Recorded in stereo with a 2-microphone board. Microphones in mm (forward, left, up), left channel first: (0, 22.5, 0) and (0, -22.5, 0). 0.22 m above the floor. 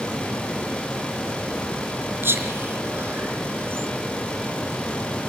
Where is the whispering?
60° right (ahead or behind), 3 m.